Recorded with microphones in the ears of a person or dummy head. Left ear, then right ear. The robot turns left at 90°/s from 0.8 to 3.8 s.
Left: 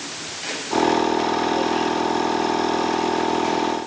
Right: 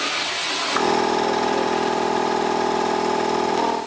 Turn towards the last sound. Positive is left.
No sound to turn to.